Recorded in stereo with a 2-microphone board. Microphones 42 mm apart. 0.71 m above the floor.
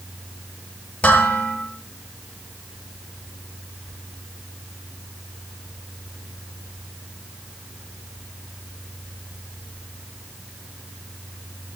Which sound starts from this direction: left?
Dishes clattering, at 1.0 s.